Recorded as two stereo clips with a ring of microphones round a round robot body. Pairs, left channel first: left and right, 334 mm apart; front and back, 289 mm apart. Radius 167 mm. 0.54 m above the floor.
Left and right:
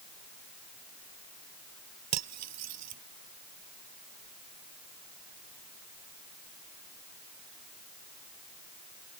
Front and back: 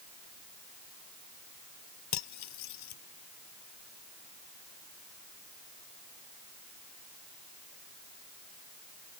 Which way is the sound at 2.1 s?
45° right.